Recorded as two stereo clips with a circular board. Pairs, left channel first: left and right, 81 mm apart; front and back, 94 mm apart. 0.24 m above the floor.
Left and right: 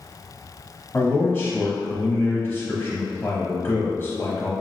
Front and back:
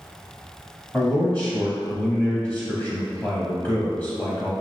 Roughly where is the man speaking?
Ahead left.